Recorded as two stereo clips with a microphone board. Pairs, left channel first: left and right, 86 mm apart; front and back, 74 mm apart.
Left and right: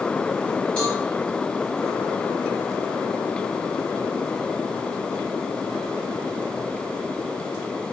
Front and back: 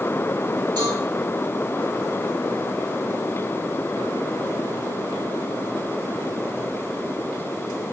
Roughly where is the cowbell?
Behind.